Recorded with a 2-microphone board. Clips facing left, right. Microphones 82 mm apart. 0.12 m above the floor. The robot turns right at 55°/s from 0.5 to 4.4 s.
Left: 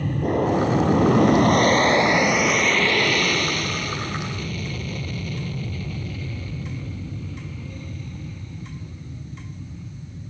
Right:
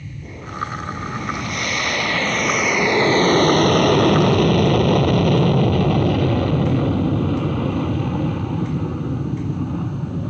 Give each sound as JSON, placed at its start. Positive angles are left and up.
{"t": 0.0, "sound": "an aircraft", "side_deg": 55}